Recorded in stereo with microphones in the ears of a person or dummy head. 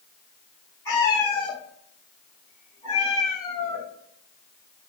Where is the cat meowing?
20° left (ahead or behind), 1.3 m; by 3.9 s 30° left (ahead or behind), 3 m.